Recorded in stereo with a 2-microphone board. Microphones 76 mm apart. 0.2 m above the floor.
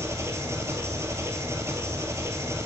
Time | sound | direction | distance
0.0 | an engine running | 40° right (ahead or behind) | 0.9 m